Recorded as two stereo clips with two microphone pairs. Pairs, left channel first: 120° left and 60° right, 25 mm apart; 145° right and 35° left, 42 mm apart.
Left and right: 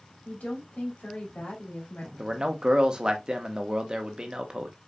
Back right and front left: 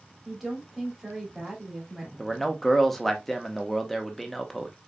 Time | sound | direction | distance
0.2 | a woman speaking | 120° left | 3 m
2.2 | a man speaking | 60° right | 1.0 m